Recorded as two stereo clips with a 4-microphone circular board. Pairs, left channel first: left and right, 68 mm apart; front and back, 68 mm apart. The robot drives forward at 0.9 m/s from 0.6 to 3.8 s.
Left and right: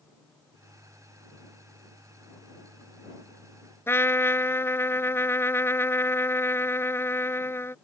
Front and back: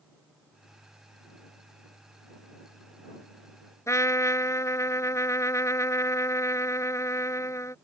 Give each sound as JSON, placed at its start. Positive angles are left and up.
{"t": 3.9, "sound": "a trumpet", "azimuth_deg": 40}